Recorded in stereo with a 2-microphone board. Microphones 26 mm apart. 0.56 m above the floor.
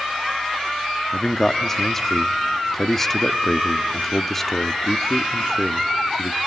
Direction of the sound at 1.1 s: 10° left (ahead or behind).